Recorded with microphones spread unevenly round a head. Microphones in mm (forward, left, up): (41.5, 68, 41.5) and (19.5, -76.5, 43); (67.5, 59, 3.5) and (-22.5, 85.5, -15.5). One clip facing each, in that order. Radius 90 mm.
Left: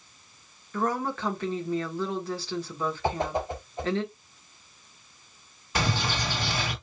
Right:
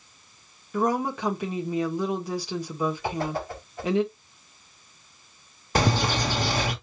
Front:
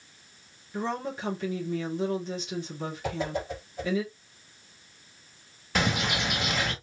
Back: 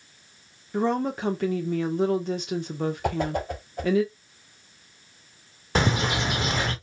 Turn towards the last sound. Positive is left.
turn(degrees=-135)